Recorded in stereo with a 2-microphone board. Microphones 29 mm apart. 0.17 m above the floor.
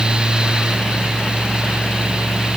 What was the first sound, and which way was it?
Only background noise.